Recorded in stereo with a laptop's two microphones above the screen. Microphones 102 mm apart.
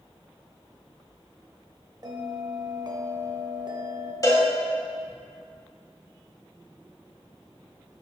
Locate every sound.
2.0 s a bell: 40° right (ahead or behind), 0.8 m
4.2 s a cowbell: 35° left (ahead or behind), 1.4 m